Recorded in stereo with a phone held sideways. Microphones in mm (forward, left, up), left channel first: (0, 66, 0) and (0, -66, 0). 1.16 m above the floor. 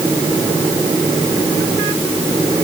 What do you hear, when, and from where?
Only background noise.